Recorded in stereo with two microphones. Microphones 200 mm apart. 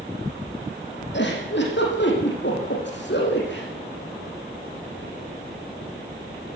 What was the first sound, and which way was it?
A giggle, 60° left (ahead or behind).